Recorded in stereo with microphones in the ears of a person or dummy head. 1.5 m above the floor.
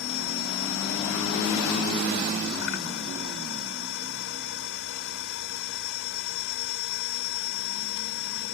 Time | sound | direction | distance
0.0 | a machine running | 75° left (ahead or behind) | ?